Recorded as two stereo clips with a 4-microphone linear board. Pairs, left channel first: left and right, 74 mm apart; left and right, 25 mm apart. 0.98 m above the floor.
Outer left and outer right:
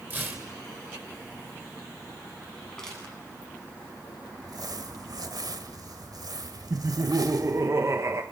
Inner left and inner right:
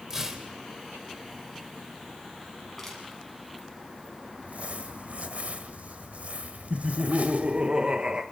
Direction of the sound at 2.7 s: 10° left (ahead or behind).